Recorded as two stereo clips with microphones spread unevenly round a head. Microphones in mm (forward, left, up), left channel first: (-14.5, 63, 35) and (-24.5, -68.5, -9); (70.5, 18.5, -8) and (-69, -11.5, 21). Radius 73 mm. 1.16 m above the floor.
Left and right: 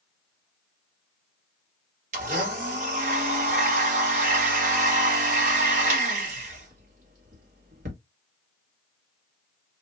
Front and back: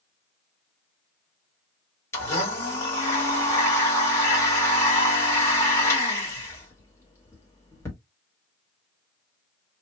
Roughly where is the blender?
Ahead right.